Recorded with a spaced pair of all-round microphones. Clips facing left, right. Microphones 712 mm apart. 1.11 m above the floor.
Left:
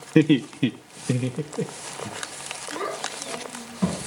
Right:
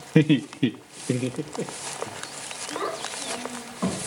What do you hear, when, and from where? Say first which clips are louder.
0.1 s laughter: left 2 dB; 25° right (ahead or behind), 0.5 m; by 2.1 s 55° left (ahead or behind), 1.0 m
2.7 s a child speaking: even; 55° left (ahead or behind), 8.5 m